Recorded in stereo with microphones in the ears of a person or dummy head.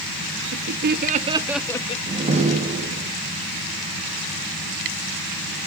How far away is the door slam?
About 2 m.